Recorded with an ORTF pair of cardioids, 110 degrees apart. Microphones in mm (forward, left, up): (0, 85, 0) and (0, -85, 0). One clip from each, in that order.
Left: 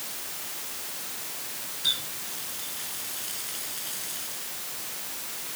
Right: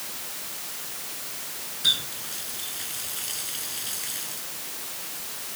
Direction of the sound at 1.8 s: 25° right.